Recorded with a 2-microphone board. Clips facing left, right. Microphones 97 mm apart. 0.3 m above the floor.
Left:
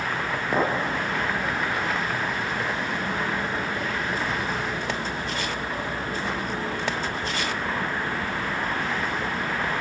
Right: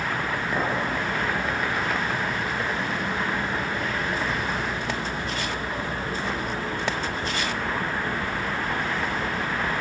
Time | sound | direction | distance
0.5 | a clink | 25° left (ahead or behind) | 4 m